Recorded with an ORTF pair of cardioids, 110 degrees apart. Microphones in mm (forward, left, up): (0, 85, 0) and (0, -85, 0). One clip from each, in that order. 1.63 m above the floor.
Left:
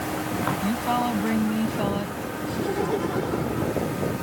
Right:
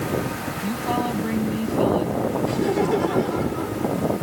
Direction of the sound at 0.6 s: 10° left.